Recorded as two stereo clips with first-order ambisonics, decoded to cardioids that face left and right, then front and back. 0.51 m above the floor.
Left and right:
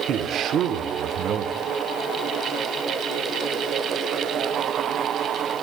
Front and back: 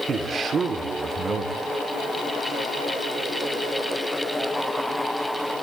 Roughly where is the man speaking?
Behind right.